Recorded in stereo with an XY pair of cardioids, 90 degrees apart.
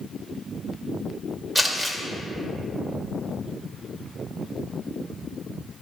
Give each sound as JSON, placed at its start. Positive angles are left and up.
{"t": 1.6, "sound": "crumpling", "azimuth_deg": -15, "distance_m": 1.7}